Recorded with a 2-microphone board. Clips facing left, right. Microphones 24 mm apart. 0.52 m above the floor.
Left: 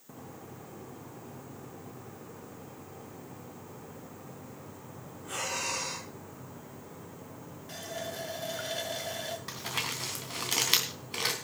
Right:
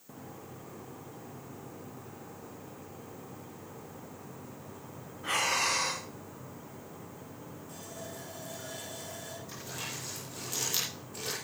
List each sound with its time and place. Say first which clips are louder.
5.2 s breathing: right 6 dB; 65° right (ahead or behind), 4 m
7.7 s a running tap: left 8 dB; 55° left (ahead or behind), 2 m
9.5 s crumpling: left 6 dB; 80° left, 3.5 m